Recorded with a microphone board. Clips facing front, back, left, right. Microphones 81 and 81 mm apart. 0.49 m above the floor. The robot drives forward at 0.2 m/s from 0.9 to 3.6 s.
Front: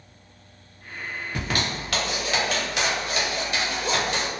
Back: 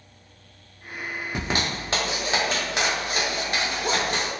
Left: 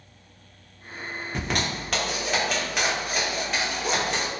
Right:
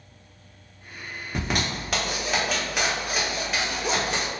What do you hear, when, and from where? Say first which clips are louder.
1.4 s a zipper: back 1 dB, right 1 dB; 170° right, 0.9 m; by 4.3 s 175° right, 1.2 m